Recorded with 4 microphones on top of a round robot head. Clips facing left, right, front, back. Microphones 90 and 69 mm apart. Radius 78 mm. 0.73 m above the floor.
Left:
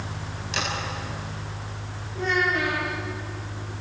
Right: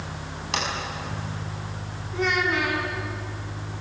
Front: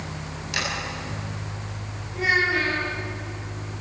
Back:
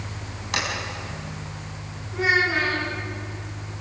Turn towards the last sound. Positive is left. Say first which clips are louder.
# even, back 1 dB
turn(degrees=-110)